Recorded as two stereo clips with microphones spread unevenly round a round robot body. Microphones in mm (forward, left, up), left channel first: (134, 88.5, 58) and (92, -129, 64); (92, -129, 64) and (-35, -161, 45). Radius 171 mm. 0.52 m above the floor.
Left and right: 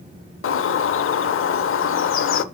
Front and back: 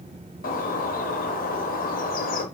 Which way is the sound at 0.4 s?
45° left.